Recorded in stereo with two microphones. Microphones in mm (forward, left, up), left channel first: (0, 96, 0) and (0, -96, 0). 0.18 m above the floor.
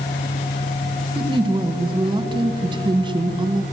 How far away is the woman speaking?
About 1.7 m.